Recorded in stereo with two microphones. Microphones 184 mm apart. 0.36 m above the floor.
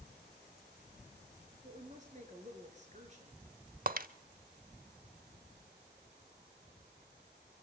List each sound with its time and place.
1.6 s a woman speaking: 40° right (ahead or behind), 6 m
3.9 s breaking glass: 50° right (ahead or behind), 0.8 m